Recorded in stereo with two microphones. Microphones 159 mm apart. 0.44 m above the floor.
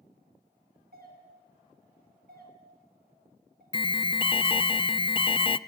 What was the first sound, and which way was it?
A doorbell, 65° right (ahead or behind).